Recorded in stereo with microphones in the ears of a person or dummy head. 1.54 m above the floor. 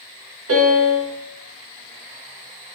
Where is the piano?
85° right, 2 m.